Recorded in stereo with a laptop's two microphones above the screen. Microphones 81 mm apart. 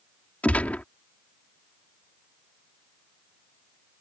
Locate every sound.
0.4 s a gunshot: 20° left (ahead or behind)